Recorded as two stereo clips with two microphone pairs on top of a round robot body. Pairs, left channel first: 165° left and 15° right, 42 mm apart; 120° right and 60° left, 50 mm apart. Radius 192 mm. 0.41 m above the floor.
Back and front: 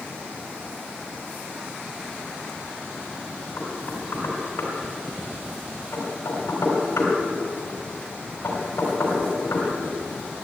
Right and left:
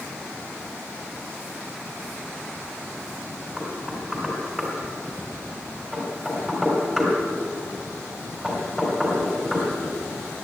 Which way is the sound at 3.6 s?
150° left.